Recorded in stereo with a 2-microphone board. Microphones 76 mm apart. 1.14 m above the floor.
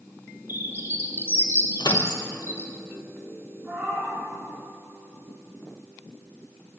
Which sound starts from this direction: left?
A microwave, at 1.8 s.